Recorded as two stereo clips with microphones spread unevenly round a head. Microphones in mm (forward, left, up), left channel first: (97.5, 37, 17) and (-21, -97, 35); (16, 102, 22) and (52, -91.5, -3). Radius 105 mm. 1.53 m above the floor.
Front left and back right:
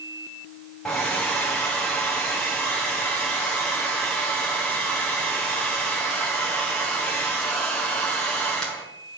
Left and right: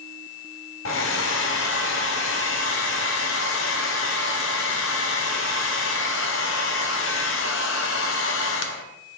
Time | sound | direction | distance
0.8 | a hair dryer | 135° left | 1.0 m